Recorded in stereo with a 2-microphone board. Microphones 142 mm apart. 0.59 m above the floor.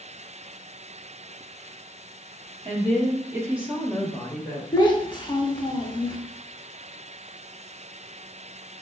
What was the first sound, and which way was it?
A woman speaking, 40° right (ahead or behind).